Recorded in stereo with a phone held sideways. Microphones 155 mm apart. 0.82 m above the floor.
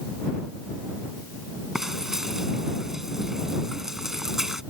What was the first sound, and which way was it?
Frying, 5° right (ahead or behind).